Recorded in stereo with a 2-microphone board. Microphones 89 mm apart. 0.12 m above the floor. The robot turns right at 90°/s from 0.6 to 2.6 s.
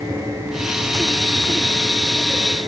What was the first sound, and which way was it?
Only background noise.